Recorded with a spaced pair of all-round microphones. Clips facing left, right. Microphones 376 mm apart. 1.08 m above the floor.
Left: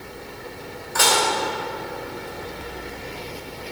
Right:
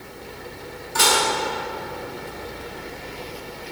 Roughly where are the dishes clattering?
Right.